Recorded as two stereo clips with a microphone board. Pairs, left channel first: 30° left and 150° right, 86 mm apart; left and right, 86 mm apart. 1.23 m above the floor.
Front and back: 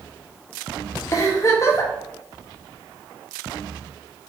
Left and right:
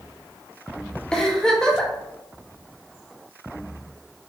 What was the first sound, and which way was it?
A giggle, 15° left.